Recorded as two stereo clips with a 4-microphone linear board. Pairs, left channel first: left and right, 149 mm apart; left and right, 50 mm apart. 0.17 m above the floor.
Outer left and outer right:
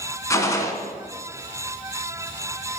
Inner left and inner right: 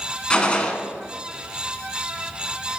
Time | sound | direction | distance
0.3 | a gunshot | 20° left (ahead or behind) | 0.7 m